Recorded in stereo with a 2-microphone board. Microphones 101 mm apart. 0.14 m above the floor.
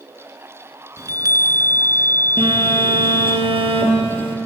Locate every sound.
1.0 s a chime: 35° right (ahead or behind), 0.7 m
2.4 s a phone buzzing: 60° right (ahead or behind), 3.5 m